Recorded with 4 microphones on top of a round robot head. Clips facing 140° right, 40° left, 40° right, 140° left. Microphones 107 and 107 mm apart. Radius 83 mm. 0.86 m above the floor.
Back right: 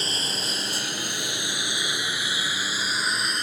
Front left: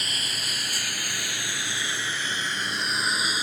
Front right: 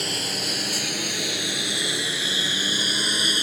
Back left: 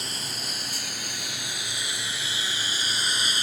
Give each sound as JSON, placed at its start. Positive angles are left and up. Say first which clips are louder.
{"t": 0.0, "sound": "a lawn mower", "louder": "back right 4 dB, front right 7 dB", "azimuth_deg": -75}